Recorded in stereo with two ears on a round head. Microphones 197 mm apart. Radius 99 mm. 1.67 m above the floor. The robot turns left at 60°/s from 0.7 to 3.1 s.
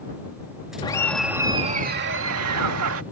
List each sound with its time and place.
0.8 s laughter: 20° left; by 3.0 s 110° right